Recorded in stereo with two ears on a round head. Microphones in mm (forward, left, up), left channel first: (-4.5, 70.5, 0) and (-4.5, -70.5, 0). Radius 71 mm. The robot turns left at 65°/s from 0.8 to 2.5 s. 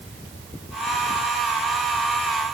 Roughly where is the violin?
I don't hear a violin.